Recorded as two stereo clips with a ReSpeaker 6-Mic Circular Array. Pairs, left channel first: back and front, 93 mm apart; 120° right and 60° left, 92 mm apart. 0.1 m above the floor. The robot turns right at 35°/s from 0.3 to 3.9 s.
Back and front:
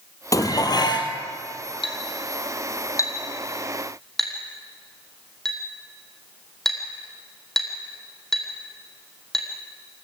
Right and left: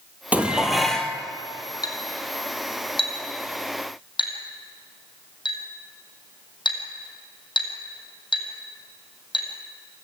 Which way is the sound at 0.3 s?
130° left.